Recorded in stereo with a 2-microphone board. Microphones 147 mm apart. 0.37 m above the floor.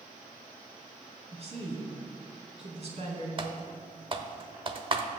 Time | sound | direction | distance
1.3 | a woman speaking | 45° right (ahead or behind) | 3.5 m
3.4 | typing on a keyboard | 35° right (ahead or behind) | 0.8 m